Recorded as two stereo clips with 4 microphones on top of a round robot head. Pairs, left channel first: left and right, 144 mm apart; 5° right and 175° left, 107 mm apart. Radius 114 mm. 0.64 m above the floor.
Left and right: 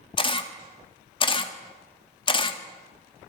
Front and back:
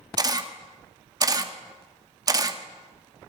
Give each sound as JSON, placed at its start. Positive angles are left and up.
{"t": 0.2, "sound": "a camera shutter", "azimuth_deg": 135, "distance_m": 1.5}